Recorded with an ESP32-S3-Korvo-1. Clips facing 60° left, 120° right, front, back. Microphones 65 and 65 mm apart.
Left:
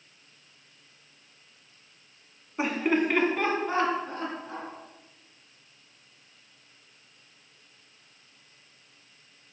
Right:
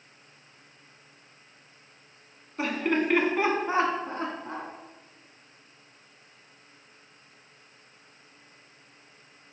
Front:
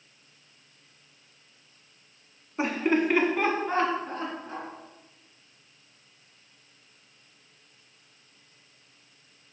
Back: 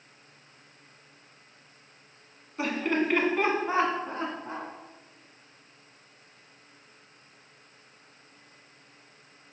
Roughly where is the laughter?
Ahead.